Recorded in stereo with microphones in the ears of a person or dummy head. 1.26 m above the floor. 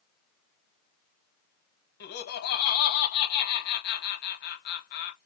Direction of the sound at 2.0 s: 60° left (ahead or behind).